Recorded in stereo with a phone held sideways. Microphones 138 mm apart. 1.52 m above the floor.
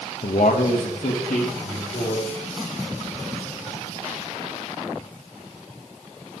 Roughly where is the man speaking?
Left.